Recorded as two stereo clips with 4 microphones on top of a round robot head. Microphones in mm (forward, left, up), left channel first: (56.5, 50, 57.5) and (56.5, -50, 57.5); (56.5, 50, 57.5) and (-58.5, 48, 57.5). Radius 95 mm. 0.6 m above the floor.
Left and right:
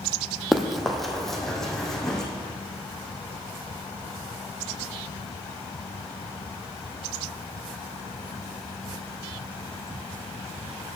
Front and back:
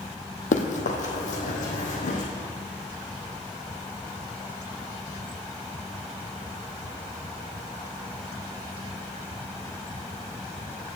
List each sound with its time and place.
0.5 s running footsteps: straight ahead, 1.2 m; by 2.2 s 5° left, 2 m